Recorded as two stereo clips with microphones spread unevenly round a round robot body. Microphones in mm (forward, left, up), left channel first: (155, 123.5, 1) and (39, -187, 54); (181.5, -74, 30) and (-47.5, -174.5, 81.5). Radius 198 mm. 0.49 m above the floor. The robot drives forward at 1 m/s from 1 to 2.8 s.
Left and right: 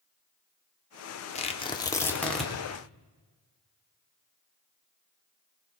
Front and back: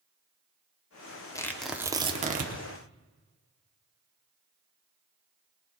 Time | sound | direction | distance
1.4 | tearing paper | 55° left | 1.2 m